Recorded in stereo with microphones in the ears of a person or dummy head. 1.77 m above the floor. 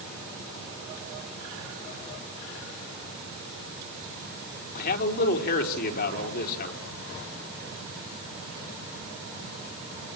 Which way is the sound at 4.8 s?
50° left (ahead or behind).